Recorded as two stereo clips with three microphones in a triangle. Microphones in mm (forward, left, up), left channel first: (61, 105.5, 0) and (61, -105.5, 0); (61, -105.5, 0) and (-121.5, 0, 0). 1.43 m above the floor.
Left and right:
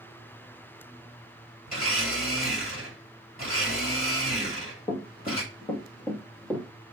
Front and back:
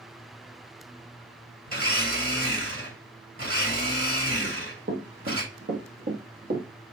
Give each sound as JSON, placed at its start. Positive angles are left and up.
{"t": 1.7, "sound": "a blender", "azimuth_deg": 140, "distance_m": 5.5}
{"t": 4.4, "sound": "running footsteps", "azimuth_deg": 140, "distance_m": 3.0}